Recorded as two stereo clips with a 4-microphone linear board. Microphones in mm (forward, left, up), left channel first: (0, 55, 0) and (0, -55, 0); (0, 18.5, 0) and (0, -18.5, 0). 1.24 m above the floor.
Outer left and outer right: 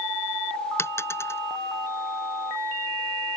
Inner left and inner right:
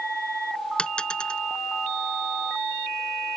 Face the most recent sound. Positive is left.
turn(degrees=25)  # may be behind; listen again after turning